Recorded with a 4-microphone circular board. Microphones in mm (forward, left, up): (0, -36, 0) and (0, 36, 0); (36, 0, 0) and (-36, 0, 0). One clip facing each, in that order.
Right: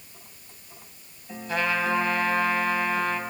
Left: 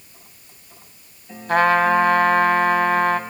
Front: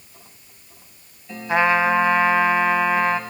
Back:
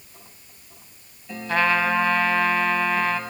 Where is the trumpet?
70° left, 0.9 m.